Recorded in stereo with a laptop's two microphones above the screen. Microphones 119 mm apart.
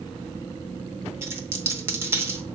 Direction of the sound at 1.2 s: 20° right (ahead or behind).